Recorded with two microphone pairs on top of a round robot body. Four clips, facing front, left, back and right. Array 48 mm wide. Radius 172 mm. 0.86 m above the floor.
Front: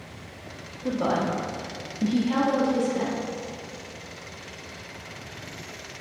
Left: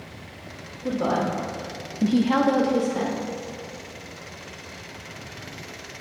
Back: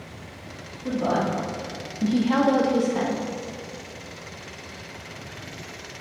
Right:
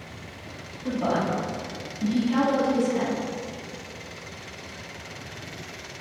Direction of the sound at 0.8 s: 20° left.